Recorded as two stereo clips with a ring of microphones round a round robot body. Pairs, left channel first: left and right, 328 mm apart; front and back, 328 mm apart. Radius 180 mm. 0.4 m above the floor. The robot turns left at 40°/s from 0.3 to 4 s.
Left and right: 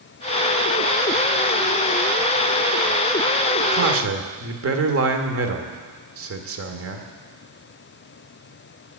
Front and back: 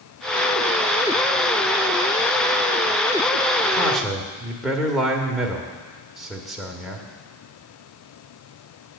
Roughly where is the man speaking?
Right.